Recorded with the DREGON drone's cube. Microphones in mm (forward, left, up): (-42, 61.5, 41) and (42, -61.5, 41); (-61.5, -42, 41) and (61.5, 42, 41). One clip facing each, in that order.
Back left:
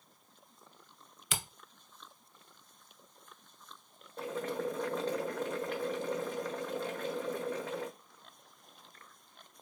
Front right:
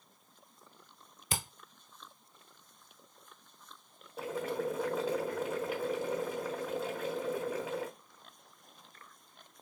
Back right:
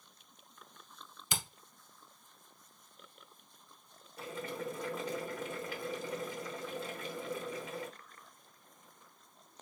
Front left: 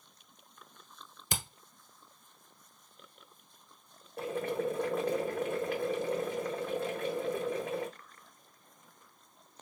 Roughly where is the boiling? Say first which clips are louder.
Front right 1 dB, front left 8 dB; ahead left.